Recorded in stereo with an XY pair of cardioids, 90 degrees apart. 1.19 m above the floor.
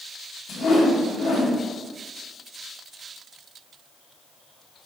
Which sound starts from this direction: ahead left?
A whoosh, at 0.5 s.